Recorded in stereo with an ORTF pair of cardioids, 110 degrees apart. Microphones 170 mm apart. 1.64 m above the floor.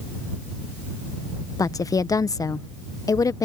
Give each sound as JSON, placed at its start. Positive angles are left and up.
{"t": 1.6, "sound": "a woman speaking", "azimuth_deg": 20}